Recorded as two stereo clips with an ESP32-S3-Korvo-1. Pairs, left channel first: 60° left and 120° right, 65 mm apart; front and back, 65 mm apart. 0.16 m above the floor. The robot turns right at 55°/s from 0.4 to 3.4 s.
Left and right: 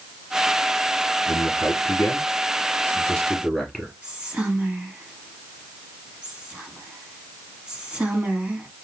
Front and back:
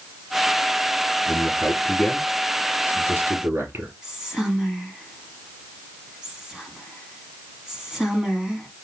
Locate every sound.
1.3 s a man speaking: 35° left, 3 m; by 3.9 s 150° left, 3 m
4.0 s whispering: 120° right, 1.1 m